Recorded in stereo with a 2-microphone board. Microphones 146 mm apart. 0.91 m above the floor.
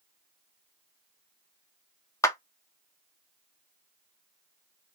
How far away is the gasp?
No gasp in this recording.